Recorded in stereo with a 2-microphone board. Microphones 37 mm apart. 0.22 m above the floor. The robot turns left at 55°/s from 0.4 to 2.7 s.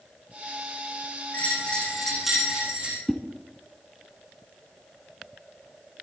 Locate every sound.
1.3 s a bell: 45° left, 7.5 m; by 3.0 s 30° right, 7.5 m
3.1 s a whoosh: 15° left (ahead or behind), 1.7 m